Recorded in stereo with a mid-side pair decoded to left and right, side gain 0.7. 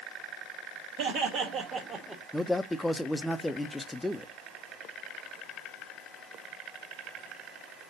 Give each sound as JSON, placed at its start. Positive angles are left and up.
{"t": 1.0, "sound": "laughter", "azimuth_deg": -70, "distance_m": 2.0}
{"t": 2.3, "sound": "a man speaking", "azimuth_deg": 5, "distance_m": 0.7}